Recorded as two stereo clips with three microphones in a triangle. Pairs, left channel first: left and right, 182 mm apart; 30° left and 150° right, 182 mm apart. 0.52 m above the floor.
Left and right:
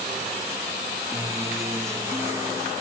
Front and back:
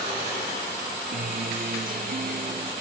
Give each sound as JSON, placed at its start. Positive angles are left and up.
{"t": 1.1, "sound": "a guitar", "azimuth_deg": -160, "distance_m": 0.7}